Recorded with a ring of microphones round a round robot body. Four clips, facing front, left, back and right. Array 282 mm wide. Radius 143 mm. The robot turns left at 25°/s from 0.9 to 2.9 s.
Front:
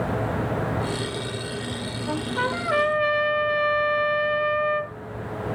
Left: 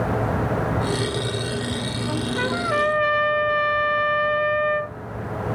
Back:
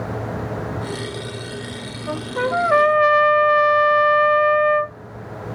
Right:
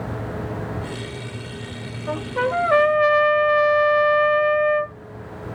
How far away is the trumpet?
About 2 m.